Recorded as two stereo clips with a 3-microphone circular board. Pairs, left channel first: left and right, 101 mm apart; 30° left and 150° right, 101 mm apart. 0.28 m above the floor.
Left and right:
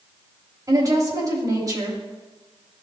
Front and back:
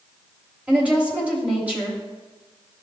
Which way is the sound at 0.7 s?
80° right.